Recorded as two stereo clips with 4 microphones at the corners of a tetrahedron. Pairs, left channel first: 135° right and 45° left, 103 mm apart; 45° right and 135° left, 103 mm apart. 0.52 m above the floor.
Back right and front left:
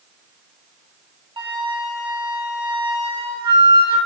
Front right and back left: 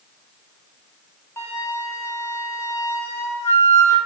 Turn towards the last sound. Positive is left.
turn(degrees=20)